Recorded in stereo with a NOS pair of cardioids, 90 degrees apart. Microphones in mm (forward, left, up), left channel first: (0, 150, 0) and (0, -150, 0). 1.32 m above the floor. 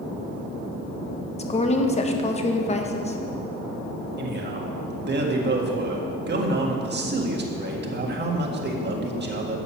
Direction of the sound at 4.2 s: 35° right.